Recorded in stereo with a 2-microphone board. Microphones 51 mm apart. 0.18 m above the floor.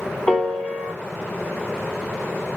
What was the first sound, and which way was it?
A piano, 25° left (ahead or behind).